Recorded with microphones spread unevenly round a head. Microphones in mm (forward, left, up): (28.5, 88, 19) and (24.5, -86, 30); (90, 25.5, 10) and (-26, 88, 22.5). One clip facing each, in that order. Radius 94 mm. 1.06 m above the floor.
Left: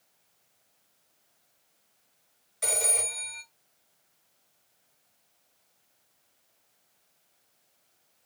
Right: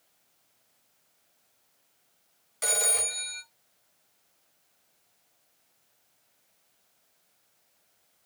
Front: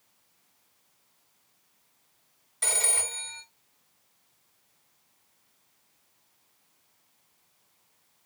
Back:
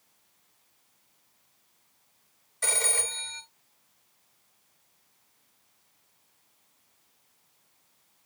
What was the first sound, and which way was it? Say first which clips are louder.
A phone ringing: even, back 1 dB; 70° right.